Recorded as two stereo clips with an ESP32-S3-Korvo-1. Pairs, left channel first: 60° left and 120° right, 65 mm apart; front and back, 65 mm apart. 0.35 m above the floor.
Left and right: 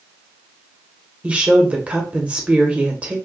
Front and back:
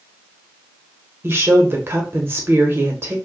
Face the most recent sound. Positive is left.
turn(degrees=-175)